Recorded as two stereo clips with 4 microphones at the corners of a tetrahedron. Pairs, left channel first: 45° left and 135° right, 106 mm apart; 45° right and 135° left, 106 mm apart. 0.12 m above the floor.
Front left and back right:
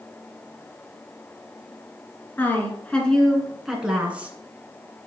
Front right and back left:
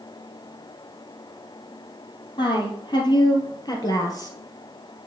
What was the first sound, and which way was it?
A woman speaking, 25° right.